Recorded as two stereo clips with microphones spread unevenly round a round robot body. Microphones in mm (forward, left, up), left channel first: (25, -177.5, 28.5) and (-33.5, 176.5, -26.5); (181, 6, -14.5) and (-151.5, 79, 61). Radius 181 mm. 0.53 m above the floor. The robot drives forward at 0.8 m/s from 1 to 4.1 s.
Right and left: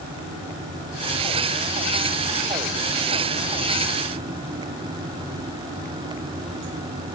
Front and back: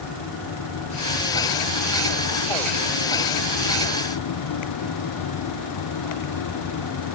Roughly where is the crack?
No crack in this recording.